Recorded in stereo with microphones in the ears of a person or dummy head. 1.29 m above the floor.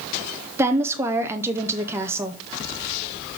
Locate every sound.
0.6 s a woman speaking: 15° right (ahead or behind), 0.5 m